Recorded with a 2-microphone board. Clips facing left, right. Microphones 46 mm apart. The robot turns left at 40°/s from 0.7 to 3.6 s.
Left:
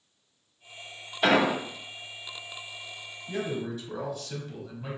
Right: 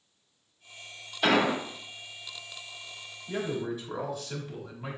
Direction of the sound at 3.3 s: 10° right (ahead or behind).